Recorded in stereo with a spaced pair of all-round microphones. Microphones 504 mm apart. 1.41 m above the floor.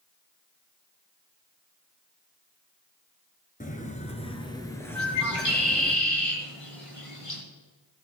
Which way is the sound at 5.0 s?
85° left.